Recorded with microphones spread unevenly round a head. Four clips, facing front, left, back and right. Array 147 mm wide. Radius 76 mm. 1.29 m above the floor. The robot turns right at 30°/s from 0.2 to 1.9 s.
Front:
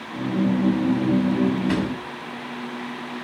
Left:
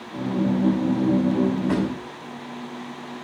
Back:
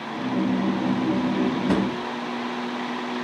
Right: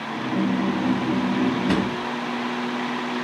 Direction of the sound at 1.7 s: Straight behind.